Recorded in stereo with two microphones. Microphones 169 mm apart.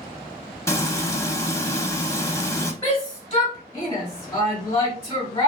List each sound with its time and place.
0.7 s frying: 20° left (ahead or behind), 0.6 m
2.8 s a shout: 20° left (ahead or behind), 1.2 m